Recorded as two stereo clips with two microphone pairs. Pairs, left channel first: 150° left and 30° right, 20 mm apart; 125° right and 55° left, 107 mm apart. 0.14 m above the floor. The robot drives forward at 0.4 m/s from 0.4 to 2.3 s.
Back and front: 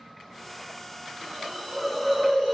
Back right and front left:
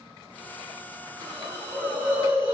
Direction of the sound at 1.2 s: 40° left.